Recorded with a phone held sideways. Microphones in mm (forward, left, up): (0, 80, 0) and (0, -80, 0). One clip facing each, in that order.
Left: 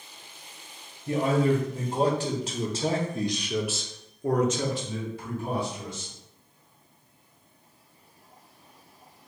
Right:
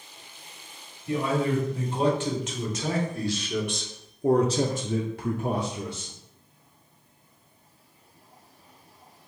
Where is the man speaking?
45° left (ahead or behind), 1.8 m; by 6.1 s 80° right, 1.1 m.